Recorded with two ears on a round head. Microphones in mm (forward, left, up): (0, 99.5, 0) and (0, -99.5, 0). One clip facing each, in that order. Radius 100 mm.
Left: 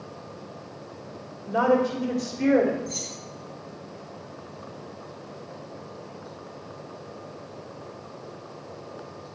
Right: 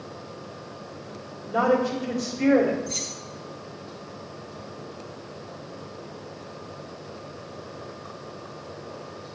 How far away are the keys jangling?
About 3 m.